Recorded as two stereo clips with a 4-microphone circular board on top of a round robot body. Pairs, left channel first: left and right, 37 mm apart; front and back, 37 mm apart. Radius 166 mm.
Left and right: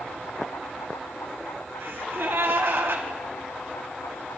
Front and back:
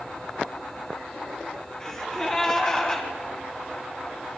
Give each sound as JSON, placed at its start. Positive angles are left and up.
{"t": 1.8, "sound": "a gasp", "azimuth_deg": -70, "distance_m": 3.0}